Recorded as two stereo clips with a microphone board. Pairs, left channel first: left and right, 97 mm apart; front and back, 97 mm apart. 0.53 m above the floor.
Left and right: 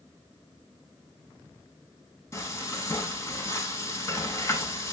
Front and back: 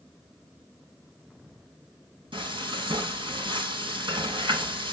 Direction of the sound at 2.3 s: 150° left.